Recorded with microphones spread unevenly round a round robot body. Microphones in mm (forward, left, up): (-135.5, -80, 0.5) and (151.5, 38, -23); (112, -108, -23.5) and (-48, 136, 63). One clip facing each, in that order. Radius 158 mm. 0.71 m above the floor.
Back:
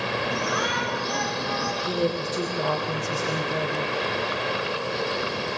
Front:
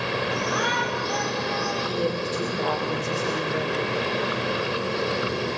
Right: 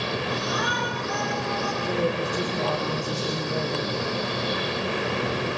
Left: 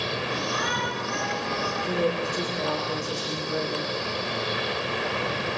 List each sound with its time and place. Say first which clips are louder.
0.3 s a shout: front 1 dB, right 2 dB; 170° right, 7 m; by 1.7 s 165° right, 6 m
1.8 s a woman speaking: back 2 dB, even; 155° right, 3 m